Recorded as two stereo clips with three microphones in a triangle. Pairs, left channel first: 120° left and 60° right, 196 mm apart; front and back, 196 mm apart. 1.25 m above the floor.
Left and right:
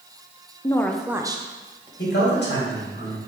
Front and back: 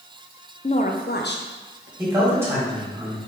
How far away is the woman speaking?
About 0.5 m.